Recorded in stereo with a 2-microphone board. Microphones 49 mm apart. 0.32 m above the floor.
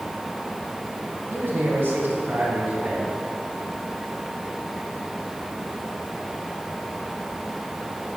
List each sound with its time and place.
1.3 s a man speaking: 55° right (ahead or behind), 2.5 m; by 3.1 s 35° right (ahead or behind), 3 m